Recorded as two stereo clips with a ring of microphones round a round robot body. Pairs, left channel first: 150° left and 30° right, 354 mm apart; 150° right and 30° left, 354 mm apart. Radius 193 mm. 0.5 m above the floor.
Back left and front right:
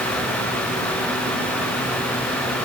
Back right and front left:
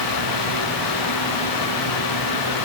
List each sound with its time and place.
Only background noise.